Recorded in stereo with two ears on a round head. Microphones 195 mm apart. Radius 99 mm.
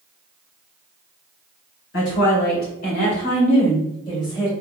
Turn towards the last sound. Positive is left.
turn(degrees=15)  # may be behind; listen again after turning